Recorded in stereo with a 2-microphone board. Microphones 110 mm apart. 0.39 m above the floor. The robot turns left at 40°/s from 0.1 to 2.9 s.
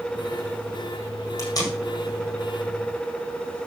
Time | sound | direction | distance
1.4 | tape being pulled | 30° left (ahead or behind) | 4 m